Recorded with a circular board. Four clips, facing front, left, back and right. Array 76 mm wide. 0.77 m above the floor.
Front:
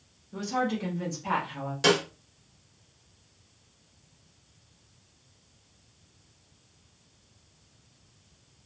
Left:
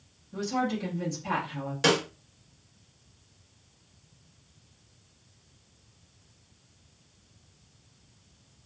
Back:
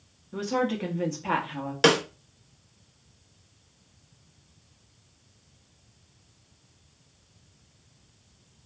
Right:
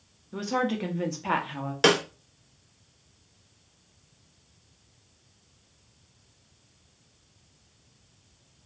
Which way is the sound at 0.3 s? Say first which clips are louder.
Right 2 dB, back 2 dB; 120° right.